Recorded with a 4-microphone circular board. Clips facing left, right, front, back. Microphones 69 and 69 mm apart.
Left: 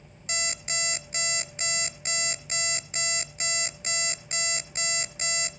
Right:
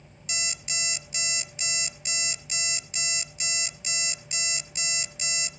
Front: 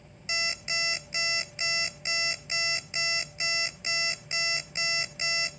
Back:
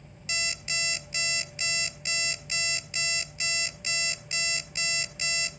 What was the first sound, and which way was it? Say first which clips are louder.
An alarm clock: left 4 dB, front 1 dB; 60° left.